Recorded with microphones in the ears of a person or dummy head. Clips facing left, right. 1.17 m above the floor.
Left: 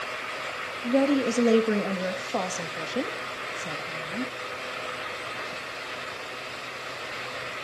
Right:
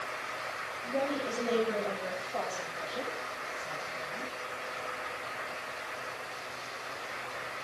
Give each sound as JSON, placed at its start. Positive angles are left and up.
{"t": 0.8, "sound": "a woman speaking", "side_deg": 65, "distance_m": 1.9}